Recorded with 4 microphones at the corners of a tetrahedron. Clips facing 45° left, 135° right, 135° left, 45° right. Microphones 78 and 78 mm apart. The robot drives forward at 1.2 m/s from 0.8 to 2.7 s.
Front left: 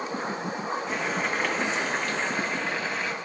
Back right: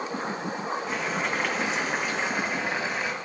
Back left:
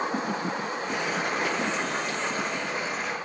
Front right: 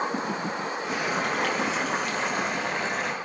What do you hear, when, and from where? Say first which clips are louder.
0.9 s boiling: even, front right 2 dB; 45° right, 5.5 m; by 3.1 s 65° right, 4 m